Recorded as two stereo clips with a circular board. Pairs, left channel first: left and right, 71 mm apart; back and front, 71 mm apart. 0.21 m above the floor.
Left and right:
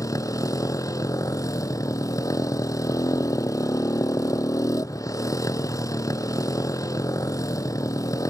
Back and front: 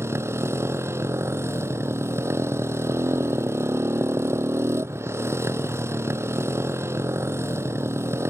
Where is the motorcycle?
50° left.